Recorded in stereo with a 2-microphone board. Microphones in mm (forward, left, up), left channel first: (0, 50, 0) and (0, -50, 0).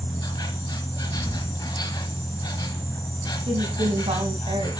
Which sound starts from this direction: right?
A woman speaking, at 3.5 s.